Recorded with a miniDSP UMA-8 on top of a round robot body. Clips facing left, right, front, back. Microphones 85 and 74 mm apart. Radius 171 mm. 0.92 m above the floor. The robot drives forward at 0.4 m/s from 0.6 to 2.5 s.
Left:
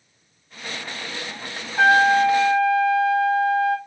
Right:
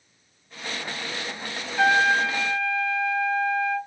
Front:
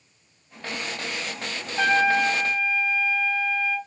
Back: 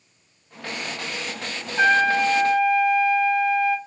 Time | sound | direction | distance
1.8 | a trumpet | 150° left | 1.5 m